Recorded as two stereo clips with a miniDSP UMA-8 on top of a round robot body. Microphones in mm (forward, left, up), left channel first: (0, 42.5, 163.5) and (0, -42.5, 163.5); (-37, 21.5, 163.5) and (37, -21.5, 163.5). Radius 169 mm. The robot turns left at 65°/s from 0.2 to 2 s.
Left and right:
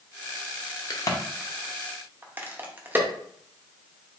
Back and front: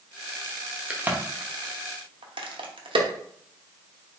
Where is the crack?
50° left, 1.0 m; by 3.1 s 25° right, 1.0 m.